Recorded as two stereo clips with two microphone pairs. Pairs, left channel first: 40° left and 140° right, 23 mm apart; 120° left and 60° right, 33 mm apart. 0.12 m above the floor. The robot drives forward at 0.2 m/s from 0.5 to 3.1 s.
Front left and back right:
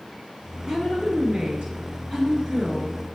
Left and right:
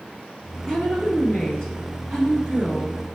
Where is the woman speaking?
175° right, 1.9 m.